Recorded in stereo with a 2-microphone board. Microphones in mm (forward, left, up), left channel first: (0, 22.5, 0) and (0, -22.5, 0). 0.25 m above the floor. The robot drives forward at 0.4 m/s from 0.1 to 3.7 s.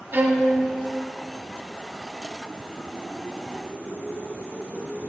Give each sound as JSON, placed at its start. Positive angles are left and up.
{"t": 0.1, "sound": "a violin", "side_deg": -50, "distance_m": 1.6}